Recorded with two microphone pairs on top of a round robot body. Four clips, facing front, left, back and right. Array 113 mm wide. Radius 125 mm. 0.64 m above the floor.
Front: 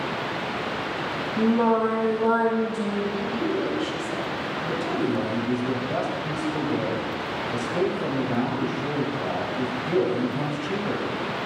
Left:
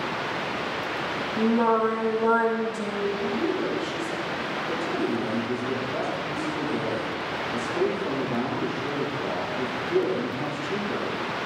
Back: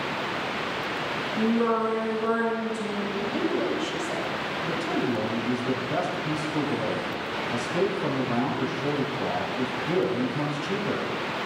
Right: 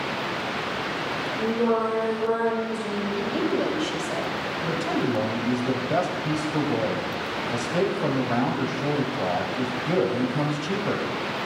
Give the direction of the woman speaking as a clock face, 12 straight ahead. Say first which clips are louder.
Right 1 dB, front 1 dB; 4 o'clock.